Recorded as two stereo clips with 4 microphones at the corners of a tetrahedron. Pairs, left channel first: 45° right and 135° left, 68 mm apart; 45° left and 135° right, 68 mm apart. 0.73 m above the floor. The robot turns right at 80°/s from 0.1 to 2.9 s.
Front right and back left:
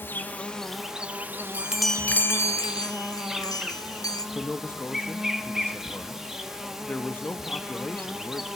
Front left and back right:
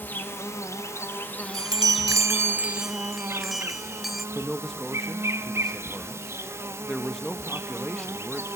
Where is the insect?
5° right, 1.3 m; by 8.6 s 140° right, 1.3 m.